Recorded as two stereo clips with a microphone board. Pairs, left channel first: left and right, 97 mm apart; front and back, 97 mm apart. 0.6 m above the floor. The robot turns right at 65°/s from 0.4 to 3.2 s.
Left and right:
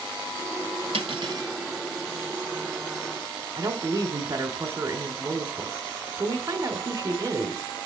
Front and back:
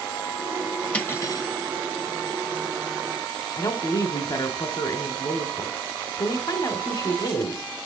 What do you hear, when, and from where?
0.9 s cutlery clinking: 75° right, 1.3 m; by 1.5 s 40° right, 1.3 m
3.6 s a woman speaking: 40° right, 2 m